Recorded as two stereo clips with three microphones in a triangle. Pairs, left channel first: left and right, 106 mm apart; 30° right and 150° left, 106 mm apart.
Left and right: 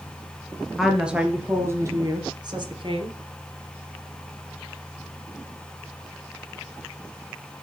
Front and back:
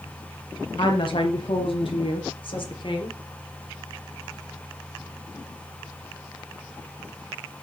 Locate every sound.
0.8 s a woman speaking: straight ahead, 2.5 m; by 3.2 s 65° right, 3 m